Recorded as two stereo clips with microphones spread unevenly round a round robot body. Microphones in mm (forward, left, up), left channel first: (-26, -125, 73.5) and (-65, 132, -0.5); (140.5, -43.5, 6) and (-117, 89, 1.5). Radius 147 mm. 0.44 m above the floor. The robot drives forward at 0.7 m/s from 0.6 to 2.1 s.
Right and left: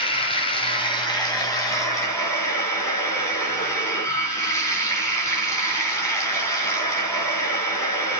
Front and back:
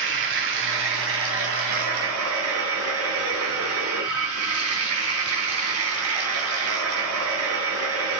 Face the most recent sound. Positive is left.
turn(degrees=-165)